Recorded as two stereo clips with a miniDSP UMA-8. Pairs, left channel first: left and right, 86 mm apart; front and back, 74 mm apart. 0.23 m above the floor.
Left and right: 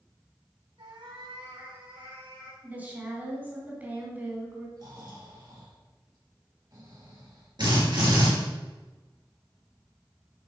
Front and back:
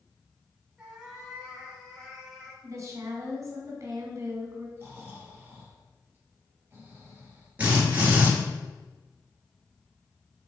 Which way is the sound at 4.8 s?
120° right.